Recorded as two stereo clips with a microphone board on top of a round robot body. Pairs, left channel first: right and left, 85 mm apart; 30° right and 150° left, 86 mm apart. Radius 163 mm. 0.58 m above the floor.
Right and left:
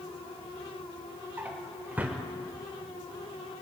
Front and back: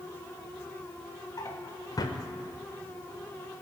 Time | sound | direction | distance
1.4 | a drawer | 15° left | 0.9 m